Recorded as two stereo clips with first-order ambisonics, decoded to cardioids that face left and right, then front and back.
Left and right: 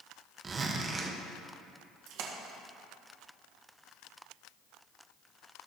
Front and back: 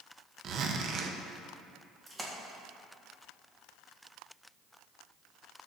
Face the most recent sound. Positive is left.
turn(degrees=-100)